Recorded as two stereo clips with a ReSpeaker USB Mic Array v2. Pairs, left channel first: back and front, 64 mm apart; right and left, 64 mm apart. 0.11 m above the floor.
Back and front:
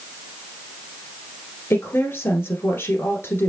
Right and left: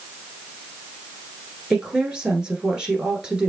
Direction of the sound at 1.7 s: 160° left.